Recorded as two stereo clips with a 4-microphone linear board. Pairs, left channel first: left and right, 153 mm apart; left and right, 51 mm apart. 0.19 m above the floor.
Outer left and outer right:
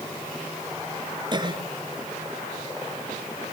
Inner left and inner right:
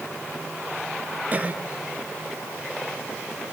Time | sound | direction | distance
1.3 | a cough | 30° right (ahead or behind) | 3.5 m